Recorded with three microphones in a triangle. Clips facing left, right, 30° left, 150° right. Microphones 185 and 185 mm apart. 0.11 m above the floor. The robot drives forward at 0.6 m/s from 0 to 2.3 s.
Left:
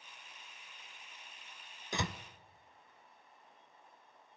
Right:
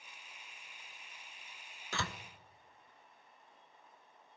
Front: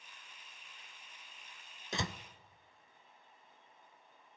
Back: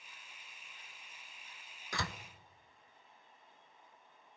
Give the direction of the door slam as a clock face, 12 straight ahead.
11 o'clock.